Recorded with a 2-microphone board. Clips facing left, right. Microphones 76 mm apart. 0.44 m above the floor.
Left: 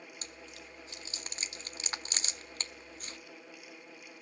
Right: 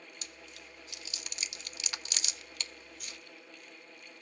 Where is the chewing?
35° left (ahead or behind), 1.0 m.